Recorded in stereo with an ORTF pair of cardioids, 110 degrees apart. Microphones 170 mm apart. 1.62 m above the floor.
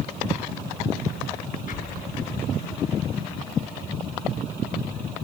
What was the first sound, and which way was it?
An explosion, 55° left.